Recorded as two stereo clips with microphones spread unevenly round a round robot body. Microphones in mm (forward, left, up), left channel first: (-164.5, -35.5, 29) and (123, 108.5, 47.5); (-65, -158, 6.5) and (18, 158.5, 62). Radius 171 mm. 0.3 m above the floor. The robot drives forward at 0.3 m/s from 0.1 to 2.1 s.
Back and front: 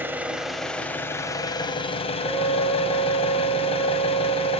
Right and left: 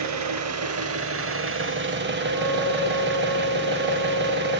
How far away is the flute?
About 5.5 m.